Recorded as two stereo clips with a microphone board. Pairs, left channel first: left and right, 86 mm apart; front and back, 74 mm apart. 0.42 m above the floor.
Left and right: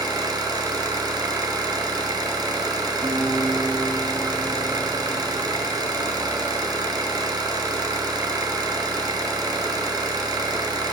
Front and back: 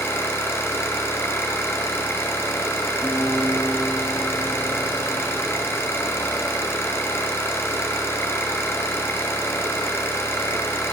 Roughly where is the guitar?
Right.